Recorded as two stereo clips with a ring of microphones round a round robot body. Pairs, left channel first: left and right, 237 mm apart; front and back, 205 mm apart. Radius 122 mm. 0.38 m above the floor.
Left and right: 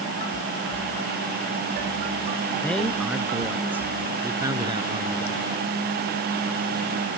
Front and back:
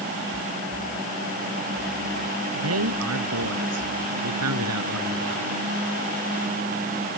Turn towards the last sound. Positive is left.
turn(degrees=-155)